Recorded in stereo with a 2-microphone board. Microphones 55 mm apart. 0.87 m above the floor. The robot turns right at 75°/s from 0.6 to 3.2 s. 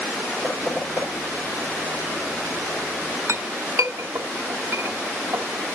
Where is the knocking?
15° right (ahead or behind), 4 m; by 1.1 s 55° right (ahead or behind), 4 m.